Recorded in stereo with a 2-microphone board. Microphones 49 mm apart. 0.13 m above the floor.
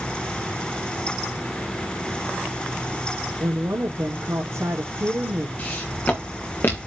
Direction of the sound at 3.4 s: 65° right (ahead or behind).